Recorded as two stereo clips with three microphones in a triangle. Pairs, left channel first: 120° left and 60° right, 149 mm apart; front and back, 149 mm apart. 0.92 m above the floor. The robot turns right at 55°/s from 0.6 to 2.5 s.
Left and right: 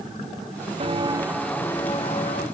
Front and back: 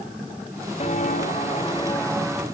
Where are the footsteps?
30° right, 1.2 m; by 2.4 s 100° left, 2.0 m.